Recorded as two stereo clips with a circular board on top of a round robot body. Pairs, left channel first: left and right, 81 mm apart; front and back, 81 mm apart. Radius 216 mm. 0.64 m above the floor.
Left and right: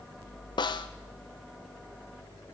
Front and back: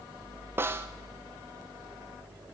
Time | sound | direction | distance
0.6 | a snare drum | 115° left | 0.6 m